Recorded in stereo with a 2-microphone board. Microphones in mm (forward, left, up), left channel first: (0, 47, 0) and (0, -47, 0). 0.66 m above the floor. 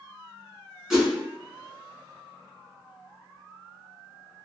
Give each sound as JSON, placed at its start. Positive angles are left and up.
{"t": 0.9, "sound": "a whoosh", "side_deg": -5, "distance_m": 1.0}